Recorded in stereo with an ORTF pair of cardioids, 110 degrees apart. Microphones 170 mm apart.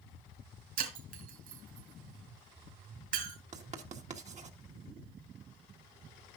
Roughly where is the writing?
Ahead right.